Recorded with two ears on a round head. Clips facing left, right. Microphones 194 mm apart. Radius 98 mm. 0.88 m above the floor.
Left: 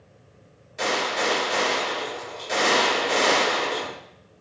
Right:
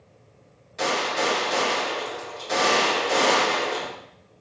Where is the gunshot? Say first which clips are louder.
Right 1 dB; centre (ahead or behind), 3.5 m.